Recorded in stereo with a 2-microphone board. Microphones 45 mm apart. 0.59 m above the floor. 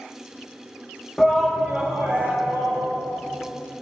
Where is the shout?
15° left (ahead or behind), 0.6 m; by 2.8 s 50° right (ahead or behind), 1.3 m.